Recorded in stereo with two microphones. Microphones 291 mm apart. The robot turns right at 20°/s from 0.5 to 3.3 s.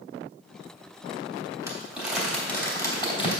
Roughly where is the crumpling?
Centre.